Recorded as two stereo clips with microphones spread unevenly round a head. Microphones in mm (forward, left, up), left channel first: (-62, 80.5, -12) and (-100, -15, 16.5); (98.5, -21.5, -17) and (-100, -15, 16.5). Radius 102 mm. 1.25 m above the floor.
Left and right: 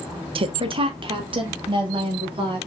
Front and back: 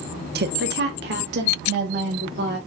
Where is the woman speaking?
140° right, 0.6 m; by 2.6 s 145° right, 2.5 m.